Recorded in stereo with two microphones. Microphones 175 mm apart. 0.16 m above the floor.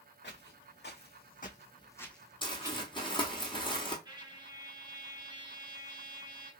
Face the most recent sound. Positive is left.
turn(degrees=-25)  # may be behind; listen again after turning